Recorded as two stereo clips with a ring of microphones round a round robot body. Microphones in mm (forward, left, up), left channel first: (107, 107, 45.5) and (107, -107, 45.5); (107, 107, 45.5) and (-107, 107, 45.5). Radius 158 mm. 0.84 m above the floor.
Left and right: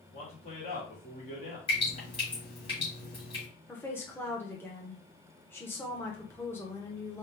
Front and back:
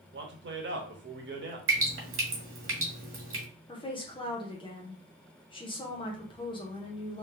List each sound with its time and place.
0.1 s a man speaking: 150° left, 1.3 m
1.7 s dripping: 160° left, 1.5 m
3.7 s a woman speaking: 25° left, 0.9 m